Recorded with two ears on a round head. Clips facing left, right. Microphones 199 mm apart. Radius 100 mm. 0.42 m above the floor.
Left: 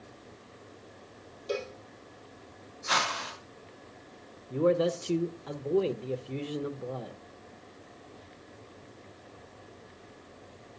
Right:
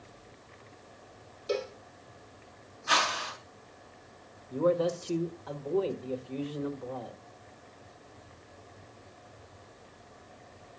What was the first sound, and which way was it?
A cowbell, 5° right (ahead or behind).